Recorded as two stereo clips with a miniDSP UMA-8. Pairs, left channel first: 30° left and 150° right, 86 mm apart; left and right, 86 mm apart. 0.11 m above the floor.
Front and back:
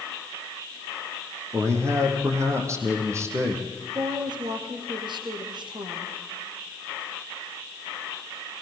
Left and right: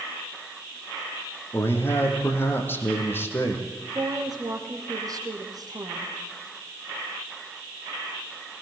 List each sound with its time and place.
1.5 s a man speaking: 155° left, 4.5 m
4.0 s a woman speaking: 130° right, 3.5 m